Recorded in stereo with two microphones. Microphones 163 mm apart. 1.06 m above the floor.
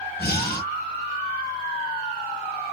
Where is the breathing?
65° left (ahead or behind), 0.8 m.